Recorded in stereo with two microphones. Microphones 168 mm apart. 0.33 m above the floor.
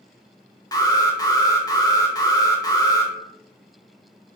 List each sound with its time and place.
0.7 s an alarm: 20° left (ahead or behind), 0.9 m